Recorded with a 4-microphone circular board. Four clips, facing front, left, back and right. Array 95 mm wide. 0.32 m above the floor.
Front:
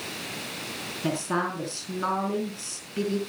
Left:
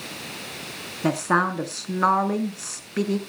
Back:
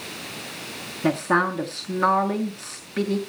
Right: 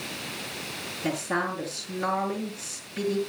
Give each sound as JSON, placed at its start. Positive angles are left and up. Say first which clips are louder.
{"t": 1.0, "sound": "a woman speaking", "louder": "left 7 dB, back 6 dB", "azimuth_deg": 120, "distance_m": 3.0}